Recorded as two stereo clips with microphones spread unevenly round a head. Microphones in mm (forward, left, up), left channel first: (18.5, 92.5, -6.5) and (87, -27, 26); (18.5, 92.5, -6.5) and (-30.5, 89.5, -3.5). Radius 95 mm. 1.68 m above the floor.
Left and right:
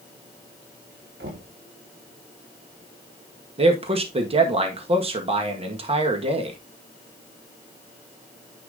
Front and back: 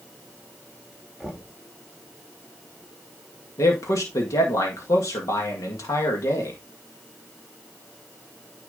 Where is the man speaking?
20° right, 1.9 m.